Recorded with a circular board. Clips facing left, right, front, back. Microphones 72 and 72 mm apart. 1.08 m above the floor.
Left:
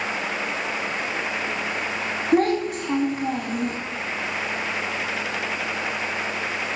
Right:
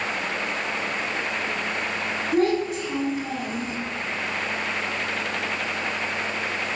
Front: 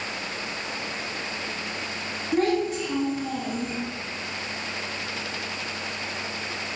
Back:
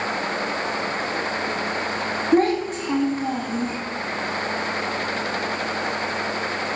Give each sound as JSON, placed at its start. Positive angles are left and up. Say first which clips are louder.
{"t": 2.3, "sound": "a child speaking", "louder": "left 2 dB, back 4 dB", "azimuth_deg": 130, "distance_m": 1.2}